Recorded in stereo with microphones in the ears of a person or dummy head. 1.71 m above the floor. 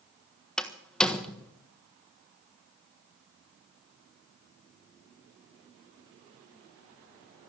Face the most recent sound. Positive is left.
turn(degrees=5)  # may be behind; listen again after turning